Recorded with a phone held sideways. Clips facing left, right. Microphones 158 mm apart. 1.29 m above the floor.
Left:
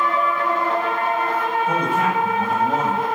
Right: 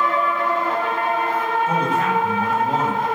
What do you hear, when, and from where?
1.7 s a man speaking: 10° left (ahead or behind), 7 m